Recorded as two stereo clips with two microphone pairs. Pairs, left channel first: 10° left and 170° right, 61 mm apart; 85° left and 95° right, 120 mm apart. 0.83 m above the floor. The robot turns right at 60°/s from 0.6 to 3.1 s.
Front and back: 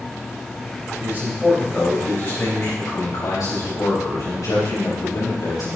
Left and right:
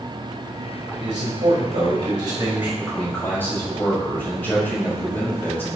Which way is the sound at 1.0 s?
115° right.